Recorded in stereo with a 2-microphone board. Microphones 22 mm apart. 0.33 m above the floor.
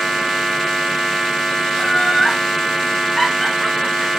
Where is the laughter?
15° left (ahead or behind), 4 m; by 4.1 s 35° left (ahead or behind), 4.5 m.